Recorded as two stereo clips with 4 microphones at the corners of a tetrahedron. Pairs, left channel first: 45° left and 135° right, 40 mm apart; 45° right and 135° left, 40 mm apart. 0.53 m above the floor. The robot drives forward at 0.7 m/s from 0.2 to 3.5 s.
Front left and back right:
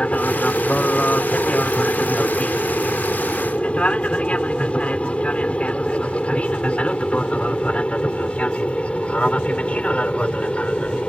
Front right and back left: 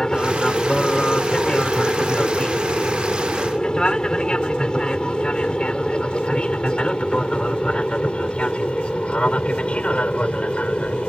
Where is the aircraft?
20° left; by 11.1 s straight ahead.